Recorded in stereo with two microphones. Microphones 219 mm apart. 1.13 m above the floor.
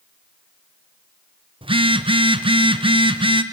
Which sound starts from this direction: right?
A phone buzzing, at 1.6 s.